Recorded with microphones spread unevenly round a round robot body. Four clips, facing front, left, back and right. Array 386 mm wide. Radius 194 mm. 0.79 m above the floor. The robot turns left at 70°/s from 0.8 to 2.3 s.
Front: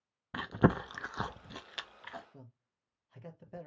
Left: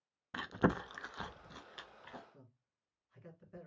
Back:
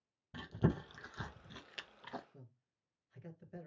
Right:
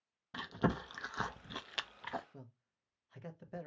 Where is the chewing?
5° left, 0.5 m; by 2.2 s 100° right, 0.5 m.